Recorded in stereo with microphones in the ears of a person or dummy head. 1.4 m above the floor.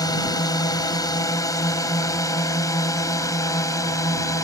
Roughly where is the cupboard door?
No cupboard door in this recording.